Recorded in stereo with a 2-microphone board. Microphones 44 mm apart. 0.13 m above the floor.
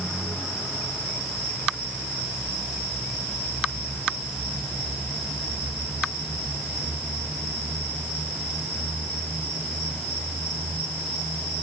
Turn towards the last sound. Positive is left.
No sound to turn to.